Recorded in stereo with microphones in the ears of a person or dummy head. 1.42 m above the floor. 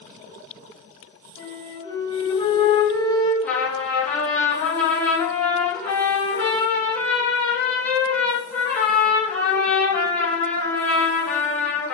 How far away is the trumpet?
About 1.6 m.